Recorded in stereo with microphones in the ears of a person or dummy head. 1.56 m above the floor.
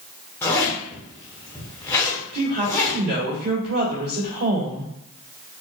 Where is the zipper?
10° left (ahead or behind), 1.0 m.